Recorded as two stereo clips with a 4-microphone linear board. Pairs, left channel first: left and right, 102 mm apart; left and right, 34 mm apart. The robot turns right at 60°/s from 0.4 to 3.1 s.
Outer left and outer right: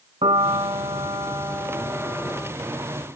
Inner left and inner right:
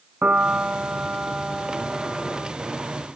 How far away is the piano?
About 0.7 m.